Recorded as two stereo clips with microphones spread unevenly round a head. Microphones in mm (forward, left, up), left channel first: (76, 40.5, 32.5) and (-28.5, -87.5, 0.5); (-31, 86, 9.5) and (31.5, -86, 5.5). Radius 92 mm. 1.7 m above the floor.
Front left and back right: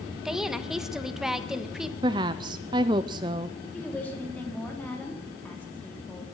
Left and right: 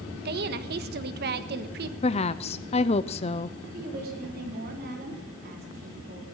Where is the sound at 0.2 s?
35° right, 1.4 m.